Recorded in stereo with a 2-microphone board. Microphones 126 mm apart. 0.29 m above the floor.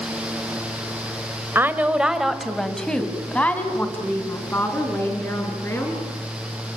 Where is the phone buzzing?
I don't hear a phone buzzing.